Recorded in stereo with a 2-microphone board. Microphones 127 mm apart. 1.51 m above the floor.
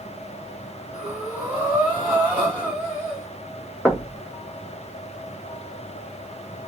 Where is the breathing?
15° right (ahead or behind), 1.8 m.